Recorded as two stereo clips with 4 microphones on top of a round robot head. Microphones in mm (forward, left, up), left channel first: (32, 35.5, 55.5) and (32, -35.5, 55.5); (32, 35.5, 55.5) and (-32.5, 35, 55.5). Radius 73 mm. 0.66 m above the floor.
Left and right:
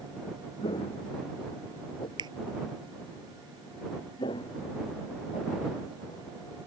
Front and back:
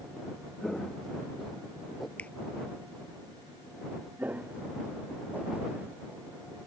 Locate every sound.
0.6 s footsteps: 85° left; by 2.1 s 95° left
2.2 s a finger snap: 70° right
4.2 s footsteps: 115° left; by 6.2 s 120° left